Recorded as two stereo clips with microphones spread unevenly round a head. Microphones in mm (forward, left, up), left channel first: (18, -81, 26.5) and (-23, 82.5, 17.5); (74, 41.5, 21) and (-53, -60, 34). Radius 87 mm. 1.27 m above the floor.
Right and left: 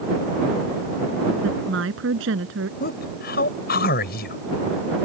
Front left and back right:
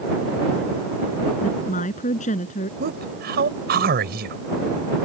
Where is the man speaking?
110° right.